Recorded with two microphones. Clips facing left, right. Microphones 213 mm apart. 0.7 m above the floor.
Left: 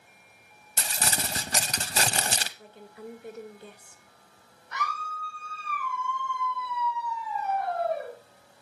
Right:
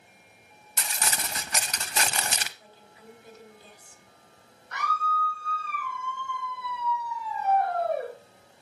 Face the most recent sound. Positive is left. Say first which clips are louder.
# right 4 dB
turn(degrees=-70)  # may be behind; listen again after turning